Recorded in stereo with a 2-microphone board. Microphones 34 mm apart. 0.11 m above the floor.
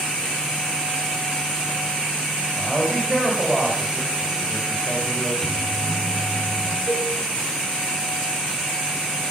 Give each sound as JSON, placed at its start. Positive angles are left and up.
{"t": 2.6, "sound": "a man speaking", "side_deg": -15, "distance_m": 4.5}
{"t": 5.4, "sound": "a microwave", "side_deg": 15, "distance_m": 1.9}
{"t": 6.9, "sound": "a cowbell", "side_deg": 80, "distance_m": 6.0}